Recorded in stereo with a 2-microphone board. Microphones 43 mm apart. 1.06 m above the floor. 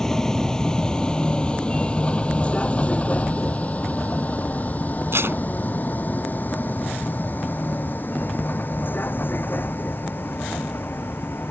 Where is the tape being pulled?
65° right (ahead or behind).